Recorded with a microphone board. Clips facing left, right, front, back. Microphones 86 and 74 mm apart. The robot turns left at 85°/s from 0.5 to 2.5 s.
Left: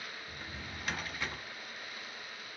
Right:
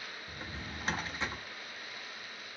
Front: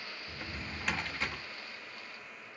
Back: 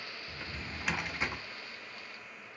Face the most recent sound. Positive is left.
turn(degrees=120)